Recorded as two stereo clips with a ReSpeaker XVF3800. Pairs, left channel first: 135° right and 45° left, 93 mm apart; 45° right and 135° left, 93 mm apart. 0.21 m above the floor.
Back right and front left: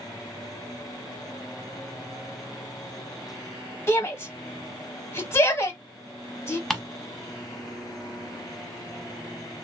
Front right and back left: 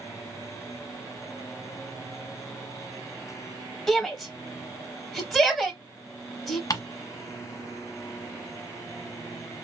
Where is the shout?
130° right, 1.0 m.